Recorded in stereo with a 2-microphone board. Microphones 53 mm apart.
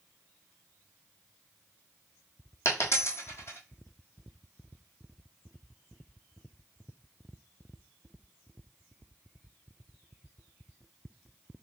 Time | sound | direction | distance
2.6 | a dropped coin | 55° left (ahead or behind) | 1.5 m